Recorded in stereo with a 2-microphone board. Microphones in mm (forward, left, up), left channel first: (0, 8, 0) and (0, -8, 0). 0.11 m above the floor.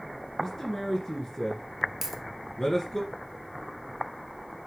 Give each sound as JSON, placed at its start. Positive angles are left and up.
{"t": 0.4, "sound": "a man speaking", "side_deg": 30, "distance_m": 1.8}
{"t": 2.0, "sound": "a dropped coin", "side_deg": -20, "distance_m": 1.1}